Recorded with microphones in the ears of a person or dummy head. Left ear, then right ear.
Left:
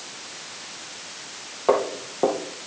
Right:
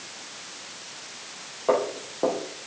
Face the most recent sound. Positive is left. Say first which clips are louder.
# left 2 dB
turn(degrees=15)  # may be behind; listen again after turning